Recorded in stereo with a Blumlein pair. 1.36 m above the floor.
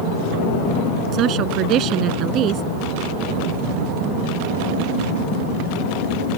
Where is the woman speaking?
35° right.